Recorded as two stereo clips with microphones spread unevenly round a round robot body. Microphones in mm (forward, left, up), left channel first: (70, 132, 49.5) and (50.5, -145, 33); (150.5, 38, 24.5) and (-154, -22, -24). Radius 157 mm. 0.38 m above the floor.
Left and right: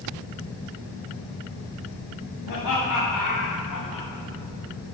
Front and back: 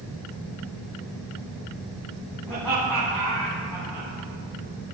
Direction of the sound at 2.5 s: 105° left.